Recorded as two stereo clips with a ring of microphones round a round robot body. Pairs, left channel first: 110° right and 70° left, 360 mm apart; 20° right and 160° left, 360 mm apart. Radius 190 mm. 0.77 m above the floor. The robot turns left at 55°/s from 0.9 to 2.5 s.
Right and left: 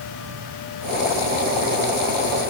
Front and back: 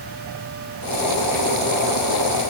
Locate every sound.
Only background noise.